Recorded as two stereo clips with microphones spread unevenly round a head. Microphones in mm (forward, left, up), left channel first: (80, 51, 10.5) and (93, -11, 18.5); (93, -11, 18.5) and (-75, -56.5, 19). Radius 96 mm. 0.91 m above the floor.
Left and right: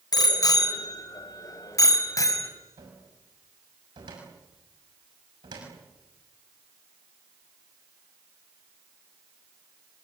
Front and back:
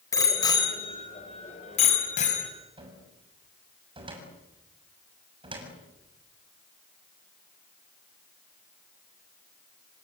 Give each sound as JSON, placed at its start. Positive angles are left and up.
{"t": 0.1, "sound": "a bicycle bell", "azimuth_deg": 90, "distance_m": 3.0}
{"t": 2.8, "sound": "a cupboard door", "azimuth_deg": -105, "distance_m": 6.5}